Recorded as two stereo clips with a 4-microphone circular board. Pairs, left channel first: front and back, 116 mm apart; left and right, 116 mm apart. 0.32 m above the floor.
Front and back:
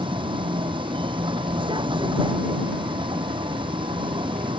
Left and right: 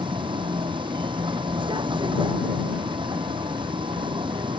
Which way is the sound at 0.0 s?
135° right.